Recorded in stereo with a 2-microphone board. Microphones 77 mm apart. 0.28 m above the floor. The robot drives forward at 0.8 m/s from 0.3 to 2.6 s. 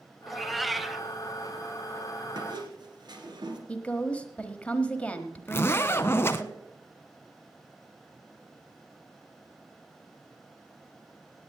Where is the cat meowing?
Centre (ahead or behind), 0.6 m.